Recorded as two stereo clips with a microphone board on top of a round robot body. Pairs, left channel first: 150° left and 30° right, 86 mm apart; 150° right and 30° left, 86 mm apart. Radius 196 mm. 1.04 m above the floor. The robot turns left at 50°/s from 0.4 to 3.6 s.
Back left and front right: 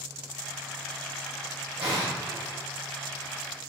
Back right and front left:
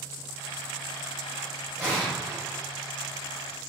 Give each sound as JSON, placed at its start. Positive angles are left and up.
{"t": 1.8, "sound": "an explosion", "azimuth_deg": -55, "distance_m": 1.1}